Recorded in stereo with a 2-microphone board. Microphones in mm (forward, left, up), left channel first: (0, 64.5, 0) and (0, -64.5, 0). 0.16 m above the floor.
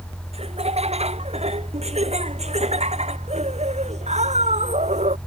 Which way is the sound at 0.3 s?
55° right (ahead or behind).